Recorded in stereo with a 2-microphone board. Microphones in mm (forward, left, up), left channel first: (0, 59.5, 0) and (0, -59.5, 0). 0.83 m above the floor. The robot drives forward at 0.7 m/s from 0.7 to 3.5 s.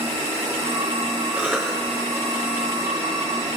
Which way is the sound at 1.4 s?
15° right (ahead or behind).